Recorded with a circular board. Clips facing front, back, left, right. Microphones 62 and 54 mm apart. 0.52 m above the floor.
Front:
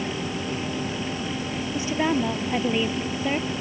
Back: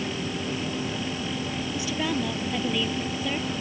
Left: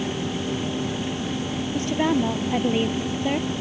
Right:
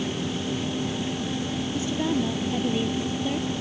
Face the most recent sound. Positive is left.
turn(degrees=60)